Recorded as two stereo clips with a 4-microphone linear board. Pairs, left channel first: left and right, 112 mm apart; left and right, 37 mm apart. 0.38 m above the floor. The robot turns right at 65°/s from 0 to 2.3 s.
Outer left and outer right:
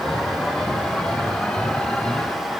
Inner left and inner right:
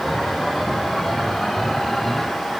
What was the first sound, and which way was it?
Only background noise.